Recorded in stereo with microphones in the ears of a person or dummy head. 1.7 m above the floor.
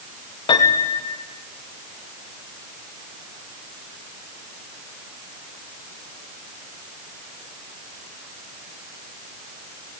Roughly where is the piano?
Left.